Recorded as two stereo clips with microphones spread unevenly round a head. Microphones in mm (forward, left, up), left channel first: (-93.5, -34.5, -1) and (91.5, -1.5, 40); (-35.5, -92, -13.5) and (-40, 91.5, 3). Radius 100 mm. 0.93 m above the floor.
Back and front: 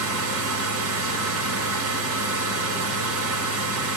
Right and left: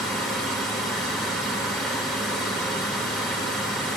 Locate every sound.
0.0 s a machine running: straight ahead, 0.7 m